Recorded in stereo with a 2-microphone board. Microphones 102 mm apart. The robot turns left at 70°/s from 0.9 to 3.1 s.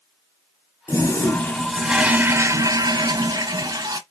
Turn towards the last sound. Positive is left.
turn(degrees=-100)